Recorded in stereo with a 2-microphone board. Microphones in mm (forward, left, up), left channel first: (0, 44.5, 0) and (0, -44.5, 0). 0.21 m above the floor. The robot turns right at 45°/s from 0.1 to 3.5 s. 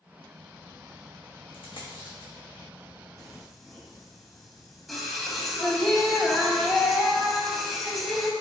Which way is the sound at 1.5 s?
80° left.